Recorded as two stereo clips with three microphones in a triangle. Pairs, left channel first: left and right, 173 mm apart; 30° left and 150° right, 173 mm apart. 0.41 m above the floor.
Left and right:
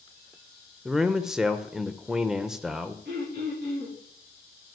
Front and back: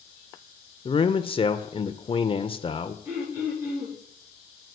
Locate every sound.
0.8 s a man speaking: 5° right, 1.1 m
3.0 s throat clearing: 75° right, 9 m